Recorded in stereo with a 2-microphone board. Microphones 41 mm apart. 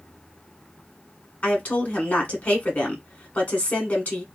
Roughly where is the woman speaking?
Left.